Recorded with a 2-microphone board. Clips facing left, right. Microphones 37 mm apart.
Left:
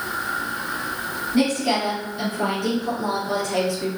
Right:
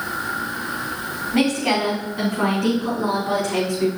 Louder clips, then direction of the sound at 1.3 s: Right 1 dB; 65° right (ahead or behind).